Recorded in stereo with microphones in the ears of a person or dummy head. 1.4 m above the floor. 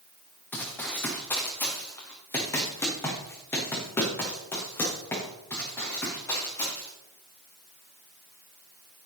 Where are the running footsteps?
15° left (ahead or behind), 4 m.